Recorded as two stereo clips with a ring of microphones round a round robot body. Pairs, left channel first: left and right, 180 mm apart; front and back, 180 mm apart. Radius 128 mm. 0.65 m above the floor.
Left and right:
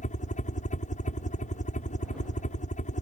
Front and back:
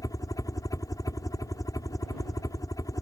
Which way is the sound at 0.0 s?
65° left.